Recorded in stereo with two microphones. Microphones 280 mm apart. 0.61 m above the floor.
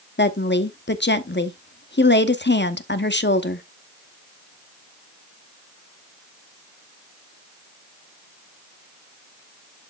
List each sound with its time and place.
0.2 s a woman speaking: 40° left (ahead or behind), 0.9 m